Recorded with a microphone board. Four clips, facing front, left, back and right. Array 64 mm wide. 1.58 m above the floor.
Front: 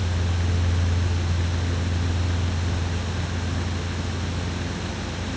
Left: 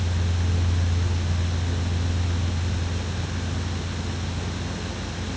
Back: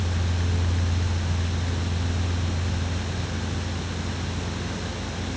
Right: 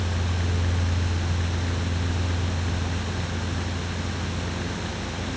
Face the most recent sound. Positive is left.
No sound to turn to.